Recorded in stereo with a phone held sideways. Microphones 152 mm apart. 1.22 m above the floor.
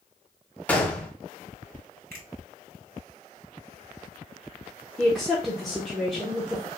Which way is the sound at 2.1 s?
75° right (ahead or behind).